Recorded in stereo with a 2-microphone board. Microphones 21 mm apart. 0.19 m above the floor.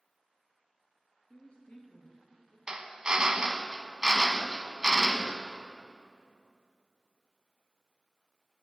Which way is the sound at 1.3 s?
50° left (ahead or behind).